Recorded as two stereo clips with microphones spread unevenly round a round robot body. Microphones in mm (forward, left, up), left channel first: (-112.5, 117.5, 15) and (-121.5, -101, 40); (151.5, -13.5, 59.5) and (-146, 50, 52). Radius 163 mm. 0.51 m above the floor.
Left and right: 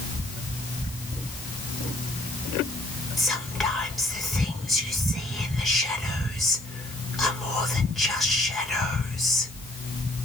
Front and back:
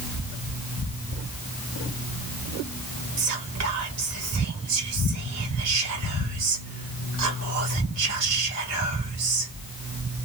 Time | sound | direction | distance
3.2 | whispering | 170° left | 2.0 m